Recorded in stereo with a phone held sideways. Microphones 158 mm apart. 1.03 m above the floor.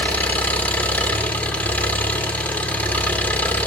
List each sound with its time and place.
0.0 s an engine running: 10° left (ahead or behind), 2.5 m